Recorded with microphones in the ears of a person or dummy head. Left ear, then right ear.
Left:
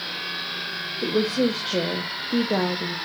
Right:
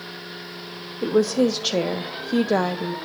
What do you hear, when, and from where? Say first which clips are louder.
1.0 s a woman speaking: right 4 dB; 80° right, 0.7 m